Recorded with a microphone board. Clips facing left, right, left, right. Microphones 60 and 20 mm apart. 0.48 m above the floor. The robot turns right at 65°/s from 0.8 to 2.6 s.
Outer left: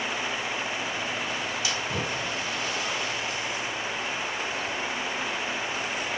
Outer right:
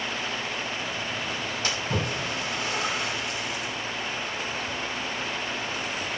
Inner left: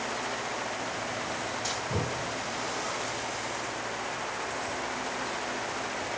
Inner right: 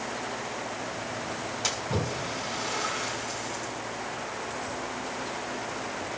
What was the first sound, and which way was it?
A splash, 40° right (ahead or behind).